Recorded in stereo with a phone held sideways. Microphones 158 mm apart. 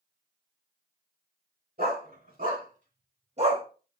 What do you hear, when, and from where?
1.8 s a dog barking: 65° right (ahead or behind), 4 m; by 3.6 s 30° right (ahead or behind), 1.3 m